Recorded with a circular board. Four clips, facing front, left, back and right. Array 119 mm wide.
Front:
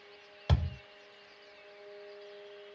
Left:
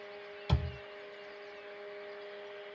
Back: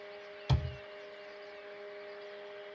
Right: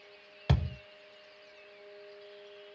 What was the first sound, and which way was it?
A thud, 60° right.